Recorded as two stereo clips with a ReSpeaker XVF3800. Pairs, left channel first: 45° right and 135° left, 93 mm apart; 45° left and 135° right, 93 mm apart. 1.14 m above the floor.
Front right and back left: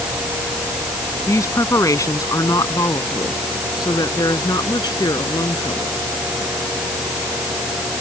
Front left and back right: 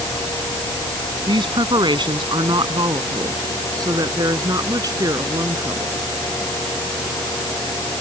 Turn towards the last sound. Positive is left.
turn(degrees=-85)